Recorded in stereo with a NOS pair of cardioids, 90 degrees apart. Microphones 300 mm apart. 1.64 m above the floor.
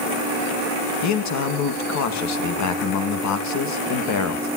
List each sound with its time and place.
1.0 s a man speaking: 70° left, 1.9 m